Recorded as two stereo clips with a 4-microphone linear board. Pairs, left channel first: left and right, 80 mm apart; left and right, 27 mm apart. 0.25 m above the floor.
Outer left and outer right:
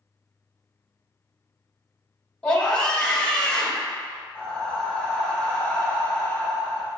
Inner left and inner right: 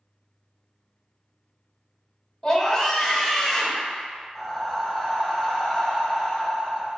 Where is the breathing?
20° left (ahead or behind), 1.2 m.